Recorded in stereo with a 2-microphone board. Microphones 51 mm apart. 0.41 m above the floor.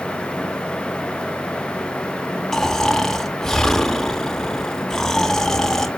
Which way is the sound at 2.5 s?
5° left (ahead or behind).